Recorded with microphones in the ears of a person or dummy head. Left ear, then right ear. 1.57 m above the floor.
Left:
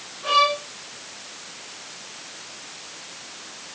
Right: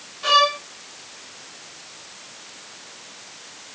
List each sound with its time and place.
0.2 s a violin: 70° right (ahead or behind), 3 m